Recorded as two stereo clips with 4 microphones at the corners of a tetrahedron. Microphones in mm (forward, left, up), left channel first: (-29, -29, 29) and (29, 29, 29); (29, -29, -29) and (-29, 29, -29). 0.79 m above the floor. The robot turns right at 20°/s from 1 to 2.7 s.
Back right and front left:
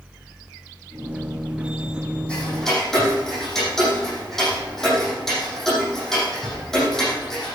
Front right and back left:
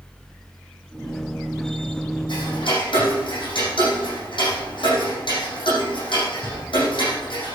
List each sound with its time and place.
2.3 s ticking: 60° right, 7 m; by 7.5 s 50° right, 7 m